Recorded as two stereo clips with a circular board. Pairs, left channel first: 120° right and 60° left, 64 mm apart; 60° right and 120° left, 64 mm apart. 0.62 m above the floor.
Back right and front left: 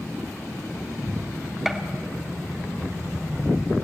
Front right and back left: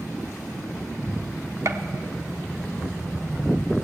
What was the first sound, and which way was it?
A gunshot, 145° left.